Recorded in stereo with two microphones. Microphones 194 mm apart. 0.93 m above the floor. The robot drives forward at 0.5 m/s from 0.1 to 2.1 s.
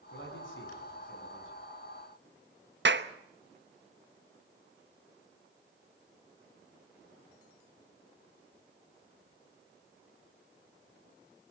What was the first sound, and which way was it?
A man speaking, 70° left (ahead or behind).